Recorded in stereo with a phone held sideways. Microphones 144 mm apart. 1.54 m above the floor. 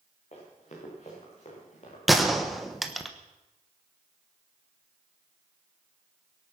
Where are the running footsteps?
50° left (ahead or behind), 6.5 m; by 2.0 s 55° left (ahead or behind), 6 m.